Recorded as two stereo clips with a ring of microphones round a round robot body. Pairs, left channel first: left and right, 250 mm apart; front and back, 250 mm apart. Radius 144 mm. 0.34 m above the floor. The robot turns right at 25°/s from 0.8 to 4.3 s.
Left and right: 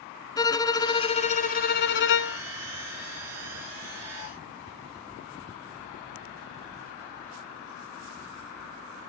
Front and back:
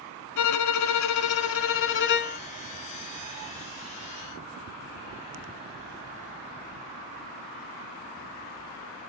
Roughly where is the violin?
Ahead.